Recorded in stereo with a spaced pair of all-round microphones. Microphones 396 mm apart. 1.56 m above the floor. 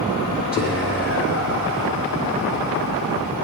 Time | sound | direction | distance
0.5 | whispering | 35° left (ahead or behind) | 1.1 m